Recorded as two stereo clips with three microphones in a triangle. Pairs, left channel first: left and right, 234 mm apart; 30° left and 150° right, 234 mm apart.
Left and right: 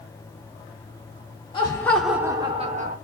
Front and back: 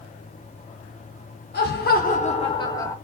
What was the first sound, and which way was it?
Laughter, 30° left.